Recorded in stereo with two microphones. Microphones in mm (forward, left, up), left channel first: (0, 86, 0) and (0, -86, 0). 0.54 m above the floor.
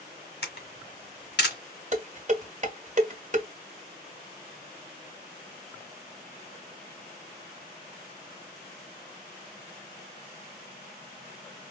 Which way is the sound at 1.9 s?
45° right (ahead or behind).